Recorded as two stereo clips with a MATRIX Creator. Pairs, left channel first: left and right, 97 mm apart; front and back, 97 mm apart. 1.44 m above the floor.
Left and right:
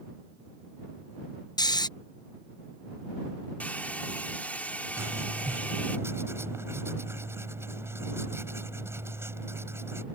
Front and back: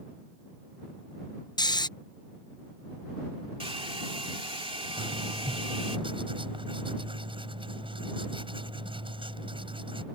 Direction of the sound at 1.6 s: 45° left.